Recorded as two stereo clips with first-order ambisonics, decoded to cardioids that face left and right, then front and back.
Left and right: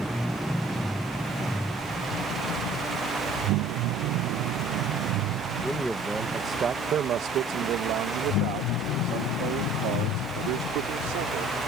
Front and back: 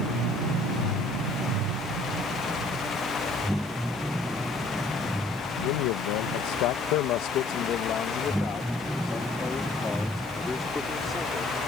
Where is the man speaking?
5° left; by 11.7 s 85° right.